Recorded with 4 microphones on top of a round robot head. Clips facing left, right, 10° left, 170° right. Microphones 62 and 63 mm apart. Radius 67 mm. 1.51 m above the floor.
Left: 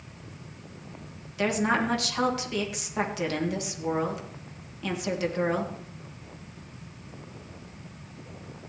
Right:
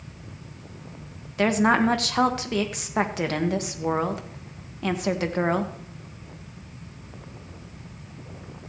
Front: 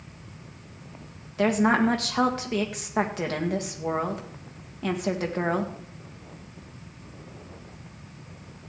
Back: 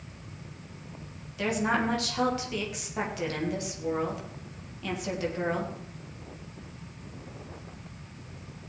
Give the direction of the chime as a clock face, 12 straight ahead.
No chime in this recording.